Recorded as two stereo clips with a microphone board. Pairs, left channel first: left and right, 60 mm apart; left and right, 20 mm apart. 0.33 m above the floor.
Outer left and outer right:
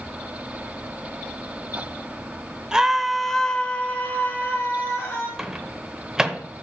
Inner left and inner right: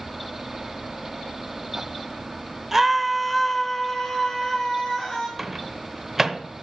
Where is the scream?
10° right (ahead or behind), 1.0 m; by 5.3 s 45° left (ahead or behind), 1.6 m.